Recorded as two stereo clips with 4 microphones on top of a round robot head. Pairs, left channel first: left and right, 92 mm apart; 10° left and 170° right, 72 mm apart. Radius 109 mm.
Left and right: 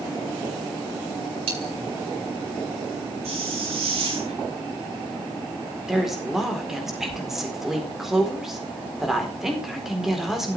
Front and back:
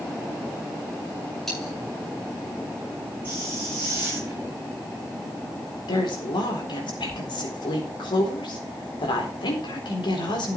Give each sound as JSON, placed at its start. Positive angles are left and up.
{"t": 1.5, "sound": "a dropped coin", "azimuth_deg": -80, "distance_m": 9.5}
{"t": 3.2, "sound": "a hiss", "azimuth_deg": -105, "distance_m": 9.0}
{"t": 5.9, "sound": "a woman speaking", "azimuth_deg": -5, "distance_m": 4.0}